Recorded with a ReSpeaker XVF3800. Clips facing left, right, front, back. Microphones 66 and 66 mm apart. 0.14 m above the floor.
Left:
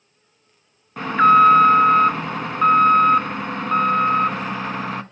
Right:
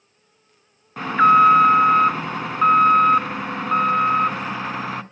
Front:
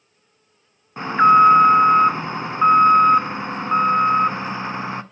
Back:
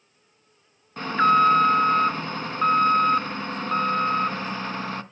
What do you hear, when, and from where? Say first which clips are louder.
1.0 s an alarm: left 1 dB, front 6 dB; straight ahead, 0.8 m